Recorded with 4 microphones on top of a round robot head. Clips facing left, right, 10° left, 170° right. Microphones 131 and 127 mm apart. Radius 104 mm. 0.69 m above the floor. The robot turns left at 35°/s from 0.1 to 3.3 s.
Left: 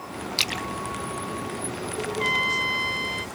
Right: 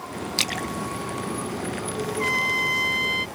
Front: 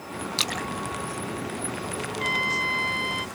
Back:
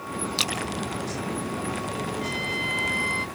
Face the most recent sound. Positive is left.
turn(degrees=-75)